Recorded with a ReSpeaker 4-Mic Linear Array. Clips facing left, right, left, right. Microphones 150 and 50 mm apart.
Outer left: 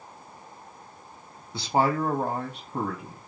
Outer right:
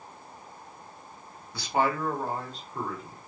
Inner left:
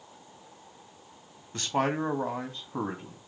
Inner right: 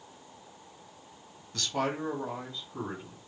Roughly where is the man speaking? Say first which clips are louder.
Outer left 3 dB, inner left 4 dB; left.